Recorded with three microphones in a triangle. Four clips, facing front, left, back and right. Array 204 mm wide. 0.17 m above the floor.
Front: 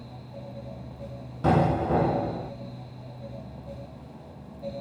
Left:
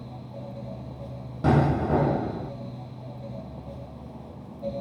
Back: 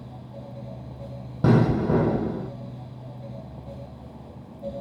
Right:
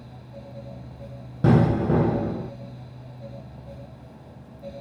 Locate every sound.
1.4 s an explosion: 155° right, 4 m